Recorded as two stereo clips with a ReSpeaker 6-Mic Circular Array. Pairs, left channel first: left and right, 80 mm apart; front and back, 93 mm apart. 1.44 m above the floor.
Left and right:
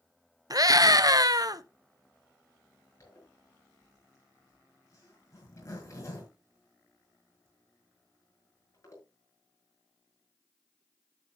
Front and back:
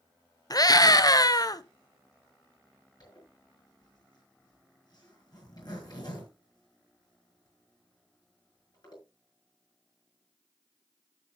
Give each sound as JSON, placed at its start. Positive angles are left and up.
{"t": 0.5, "sound": "a scream", "azimuth_deg": -50, "distance_m": 0.8}
{"t": 3.0, "sound": "a zipper", "azimuth_deg": 40, "distance_m": 6.0}